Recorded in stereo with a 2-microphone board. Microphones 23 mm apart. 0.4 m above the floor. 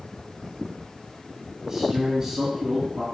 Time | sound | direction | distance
1.6 | a man speaking | 15° right (ahead or behind) | 4 m